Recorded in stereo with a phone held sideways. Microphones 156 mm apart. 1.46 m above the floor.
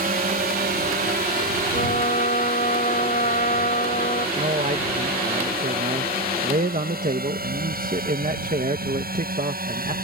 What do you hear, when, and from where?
0.0 s a drone: 65° right (ahead or behind); by 10.0 s 70° right (ahead or behind)
1.7 s a trumpet: 60° left (ahead or behind)
4.4 s a man speaking: 60° right (ahead or behind)